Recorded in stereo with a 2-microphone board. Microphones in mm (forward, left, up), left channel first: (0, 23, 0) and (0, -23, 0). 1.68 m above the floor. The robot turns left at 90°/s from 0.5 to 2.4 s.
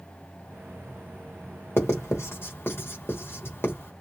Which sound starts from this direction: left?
Writing, at 1.8 s.